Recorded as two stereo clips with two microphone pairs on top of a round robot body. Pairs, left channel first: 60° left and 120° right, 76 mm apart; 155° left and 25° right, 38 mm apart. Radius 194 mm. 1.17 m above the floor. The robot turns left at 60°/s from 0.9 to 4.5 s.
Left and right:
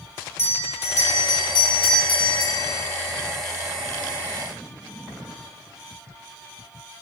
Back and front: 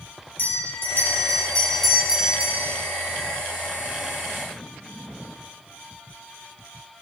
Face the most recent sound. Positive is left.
turn(degrees=-95)